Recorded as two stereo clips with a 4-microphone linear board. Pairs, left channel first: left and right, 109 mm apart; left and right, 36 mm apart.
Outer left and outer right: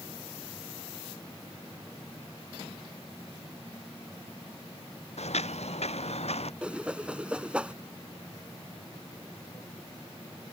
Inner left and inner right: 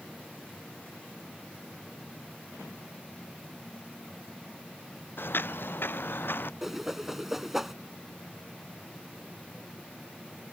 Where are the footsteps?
80° left; by 6.5 s 75° left (ahead or behind).